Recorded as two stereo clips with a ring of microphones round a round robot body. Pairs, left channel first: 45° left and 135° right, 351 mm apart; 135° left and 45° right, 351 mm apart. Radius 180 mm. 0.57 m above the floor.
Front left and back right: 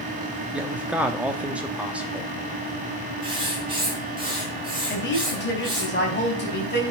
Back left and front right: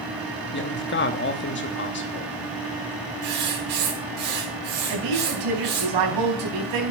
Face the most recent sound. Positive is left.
turn(degrees=-15)